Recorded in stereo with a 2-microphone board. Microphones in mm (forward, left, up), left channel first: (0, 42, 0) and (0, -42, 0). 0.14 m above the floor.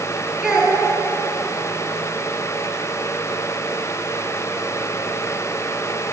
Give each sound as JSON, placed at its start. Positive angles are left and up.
{"t": 0.4, "sound": "a child speaking", "side_deg": -10, "distance_m": 1.6}